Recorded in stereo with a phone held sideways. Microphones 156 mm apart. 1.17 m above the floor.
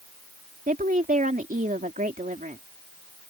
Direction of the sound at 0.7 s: 60° right (ahead or behind).